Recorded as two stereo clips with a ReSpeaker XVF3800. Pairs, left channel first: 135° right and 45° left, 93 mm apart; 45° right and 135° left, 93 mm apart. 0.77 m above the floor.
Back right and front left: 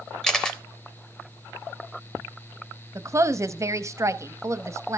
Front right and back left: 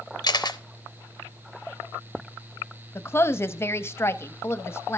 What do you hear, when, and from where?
0.2 s a camera shutter: 55° right, 0.7 m
3.0 s a woman speaking: 5° left, 0.7 m